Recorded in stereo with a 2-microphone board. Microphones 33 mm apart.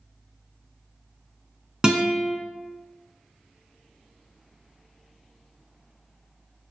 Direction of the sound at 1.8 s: 25° right (ahead or behind).